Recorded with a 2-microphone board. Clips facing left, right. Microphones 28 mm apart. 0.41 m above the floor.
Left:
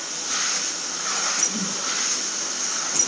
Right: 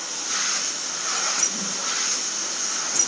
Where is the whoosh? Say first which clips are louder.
Left 1 dB; 50° left (ahead or behind), 5 m.